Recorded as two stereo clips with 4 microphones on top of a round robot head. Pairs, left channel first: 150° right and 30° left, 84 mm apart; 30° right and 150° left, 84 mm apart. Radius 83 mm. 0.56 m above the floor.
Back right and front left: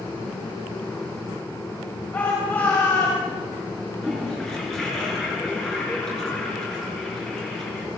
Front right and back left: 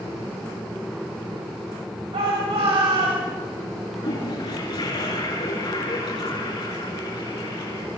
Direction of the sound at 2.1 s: 140° left.